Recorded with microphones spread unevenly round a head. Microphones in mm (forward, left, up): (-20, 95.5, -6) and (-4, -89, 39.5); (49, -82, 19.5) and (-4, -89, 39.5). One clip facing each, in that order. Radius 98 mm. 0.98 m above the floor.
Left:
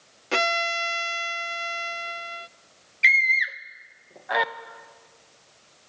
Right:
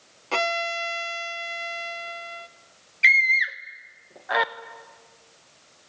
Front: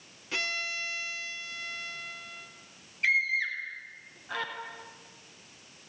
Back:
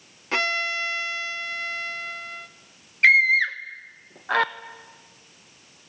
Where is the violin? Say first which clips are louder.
Even, back 9 dB; 135° left, 0.5 m.